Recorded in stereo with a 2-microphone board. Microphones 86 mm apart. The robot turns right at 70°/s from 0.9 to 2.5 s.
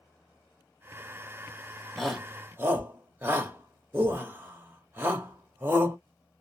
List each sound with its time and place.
2.0 s a shout: 5° left (ahead or behind), 1.1 m; by 6.0 s 25° right (ahead or behind), 1.1 m